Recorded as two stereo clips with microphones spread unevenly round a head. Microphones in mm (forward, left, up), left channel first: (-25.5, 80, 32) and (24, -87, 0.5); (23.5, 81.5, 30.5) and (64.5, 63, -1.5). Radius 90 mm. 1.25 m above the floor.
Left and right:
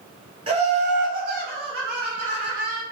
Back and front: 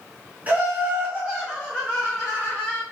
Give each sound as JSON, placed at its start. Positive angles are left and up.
{"t": 0.5, "sound": "laughter", "azimuth_deg": -25, "distance_m": 0.9}